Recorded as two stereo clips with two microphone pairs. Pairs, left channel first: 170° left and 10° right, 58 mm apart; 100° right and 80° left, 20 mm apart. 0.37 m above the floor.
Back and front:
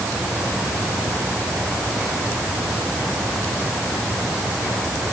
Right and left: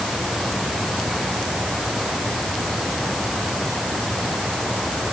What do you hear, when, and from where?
Only background noise.